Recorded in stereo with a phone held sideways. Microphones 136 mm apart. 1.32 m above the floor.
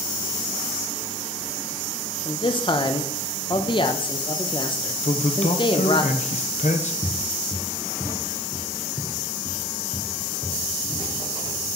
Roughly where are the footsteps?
Right.